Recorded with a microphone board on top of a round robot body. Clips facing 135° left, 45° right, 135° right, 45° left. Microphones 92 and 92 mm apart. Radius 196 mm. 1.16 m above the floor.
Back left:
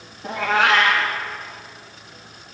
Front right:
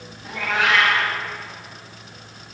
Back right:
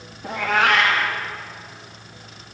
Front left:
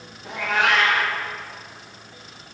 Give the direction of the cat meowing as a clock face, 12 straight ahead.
6 o'clock.